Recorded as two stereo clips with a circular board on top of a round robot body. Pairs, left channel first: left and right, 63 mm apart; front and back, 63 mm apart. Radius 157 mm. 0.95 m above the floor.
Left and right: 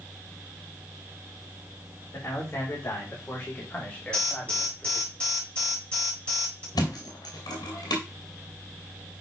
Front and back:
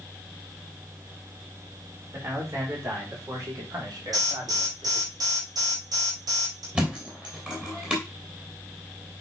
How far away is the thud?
About 2.5 m.